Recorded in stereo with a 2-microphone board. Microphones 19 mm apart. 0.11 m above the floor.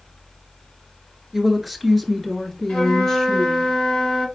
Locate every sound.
1.3 s a woman speaking: 15° right (ahead or behind), 1.4 m; by 3.7 s 35° left (ahead or behind), 1.7 m
2.7 s a flute: 65° left (ahead or behind), 4 m